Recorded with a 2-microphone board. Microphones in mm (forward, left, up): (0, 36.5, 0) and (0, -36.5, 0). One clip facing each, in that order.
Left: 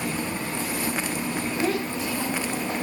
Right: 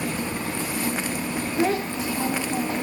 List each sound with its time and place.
1.6 s a child speaking: 25° right (ahead or behind), 1.2 m